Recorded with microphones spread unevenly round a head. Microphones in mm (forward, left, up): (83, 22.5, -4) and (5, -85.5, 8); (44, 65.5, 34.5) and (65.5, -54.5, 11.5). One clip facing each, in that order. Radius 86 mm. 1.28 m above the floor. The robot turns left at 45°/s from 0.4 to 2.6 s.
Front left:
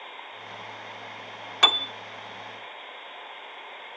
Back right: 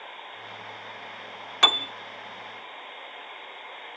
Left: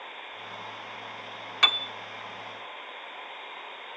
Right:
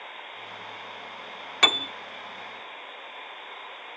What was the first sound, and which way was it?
A piano, 35° right.